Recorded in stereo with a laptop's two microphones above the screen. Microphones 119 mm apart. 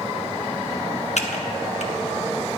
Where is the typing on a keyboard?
65° left (ahead or behind), 0.8 m.